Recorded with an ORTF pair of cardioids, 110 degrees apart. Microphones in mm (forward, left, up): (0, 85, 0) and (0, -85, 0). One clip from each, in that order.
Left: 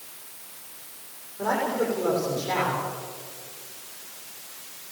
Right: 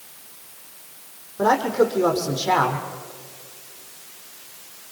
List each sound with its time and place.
1.4 s a man speaking: 65° right, 6.5 m